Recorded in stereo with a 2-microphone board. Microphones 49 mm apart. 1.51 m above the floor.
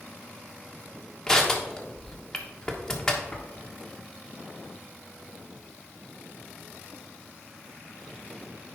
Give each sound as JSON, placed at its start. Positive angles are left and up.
{"t": 1.3, "sound": "crushing", "side_deg": 10, "distance_m": 1.2}